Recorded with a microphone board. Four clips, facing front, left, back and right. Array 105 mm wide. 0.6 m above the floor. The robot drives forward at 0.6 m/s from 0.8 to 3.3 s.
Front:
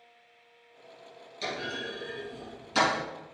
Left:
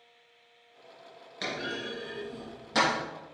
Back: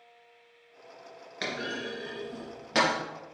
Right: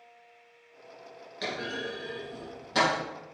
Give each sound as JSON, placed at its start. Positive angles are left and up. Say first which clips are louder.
{"t": 1.4, "sound": "a clunk", "louder": "right 1 dB, back 1 dB", "azimuth_deg": 170, "distance_m": 2.0}